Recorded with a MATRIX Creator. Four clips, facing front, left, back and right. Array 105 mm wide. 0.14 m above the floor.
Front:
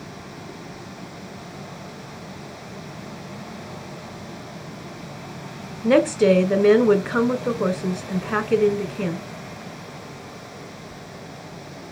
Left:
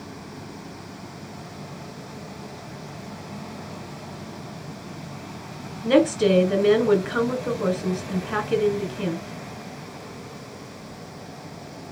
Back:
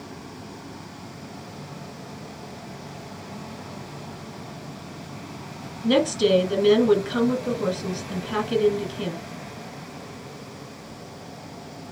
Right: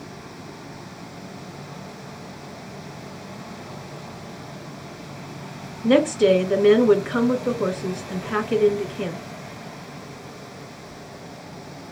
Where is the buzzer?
No buzzer in this recording.